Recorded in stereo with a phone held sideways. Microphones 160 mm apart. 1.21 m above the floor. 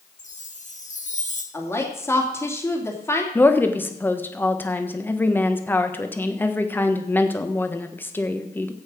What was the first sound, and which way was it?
A chime, 50° left (ahead or behind).